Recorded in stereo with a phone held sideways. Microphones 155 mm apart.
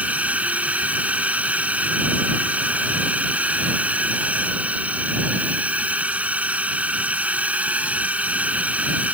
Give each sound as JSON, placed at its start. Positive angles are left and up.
{"t": 0.0, "sound": "a drone", "side_deg": -10}